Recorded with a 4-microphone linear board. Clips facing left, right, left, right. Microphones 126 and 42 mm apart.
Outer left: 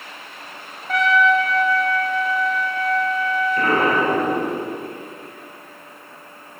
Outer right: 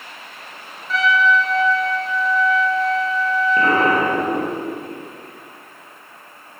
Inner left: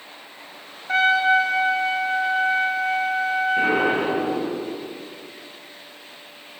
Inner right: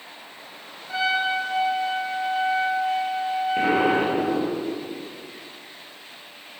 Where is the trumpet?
60° left (ahead or behind), 0.7 m.